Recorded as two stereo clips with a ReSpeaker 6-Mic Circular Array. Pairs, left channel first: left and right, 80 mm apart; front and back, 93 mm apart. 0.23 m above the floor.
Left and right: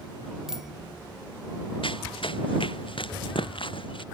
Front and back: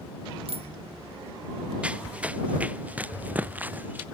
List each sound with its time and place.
0.5 s a bicycle bell: 175° right
1.8 s running footsteps: 100° left; by 4.0 s 105° left